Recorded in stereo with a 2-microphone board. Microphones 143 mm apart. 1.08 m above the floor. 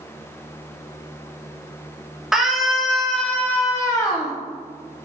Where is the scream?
5° right (ahead or behind), 1.1 m; by 4.3 s 25° left (ahead or behind), 0.7 m.